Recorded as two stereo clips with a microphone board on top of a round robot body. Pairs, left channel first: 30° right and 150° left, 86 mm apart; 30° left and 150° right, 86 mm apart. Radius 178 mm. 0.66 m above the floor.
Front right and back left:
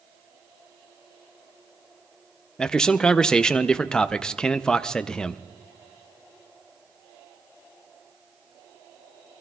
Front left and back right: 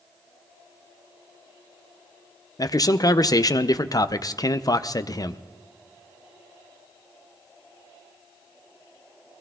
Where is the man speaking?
50° left, 0.7 m.